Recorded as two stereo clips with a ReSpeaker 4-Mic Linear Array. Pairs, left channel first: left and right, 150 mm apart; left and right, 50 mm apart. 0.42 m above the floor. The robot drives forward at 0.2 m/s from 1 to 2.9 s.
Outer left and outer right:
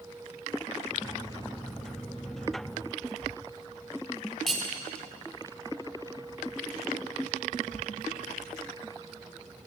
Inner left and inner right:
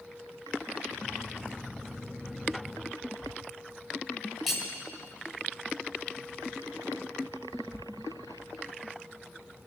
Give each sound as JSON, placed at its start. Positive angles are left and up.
{"t": 4.5, "sound": "cutlery clinking", "side_deg": 0, "distance_m": 1.2}